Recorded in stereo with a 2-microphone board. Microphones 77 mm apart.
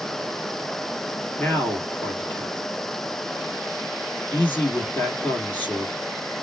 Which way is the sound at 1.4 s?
20° left (ahead or behind).